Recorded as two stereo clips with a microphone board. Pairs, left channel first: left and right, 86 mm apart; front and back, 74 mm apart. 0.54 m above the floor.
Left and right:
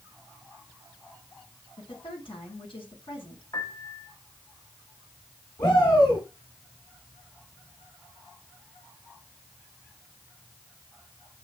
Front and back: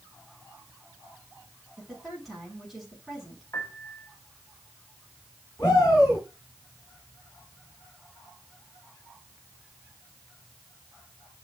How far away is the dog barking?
No dog barking in this recording.